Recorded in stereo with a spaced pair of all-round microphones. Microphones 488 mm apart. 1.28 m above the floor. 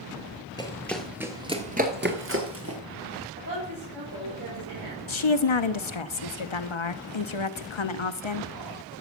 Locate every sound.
0.6 s running footsteps: 10° left (ahead or behind), 1.5 m; by 2.8 s 30° right (ahead or behind), 1.7 m
3.4 s a woman speaking: 45° right (ahead or behind), 5 m
5.1 s a woman speaking: 65° left (ahead or behind), 0.8 m